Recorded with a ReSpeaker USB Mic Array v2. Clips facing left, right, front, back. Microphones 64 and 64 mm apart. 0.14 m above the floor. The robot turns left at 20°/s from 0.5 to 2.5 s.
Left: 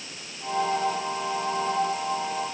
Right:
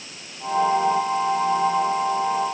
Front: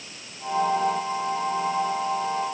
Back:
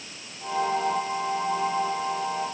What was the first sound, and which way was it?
Only background noise.